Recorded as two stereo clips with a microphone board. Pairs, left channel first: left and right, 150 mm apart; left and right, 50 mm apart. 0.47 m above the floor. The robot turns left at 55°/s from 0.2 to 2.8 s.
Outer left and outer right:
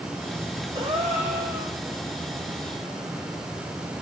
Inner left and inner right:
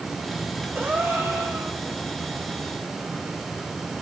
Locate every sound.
0.8 s a gasp: 35° right, 0.8 m; by 1.8 s 90° right, 0.8 m